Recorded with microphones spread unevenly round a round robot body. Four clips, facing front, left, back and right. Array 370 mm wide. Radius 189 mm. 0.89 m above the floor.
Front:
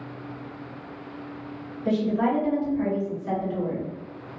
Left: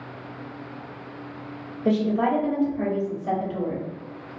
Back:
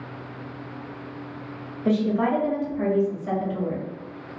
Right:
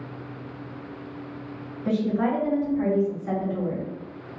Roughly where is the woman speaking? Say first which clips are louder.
Left 2 dB, back 1 dB; left.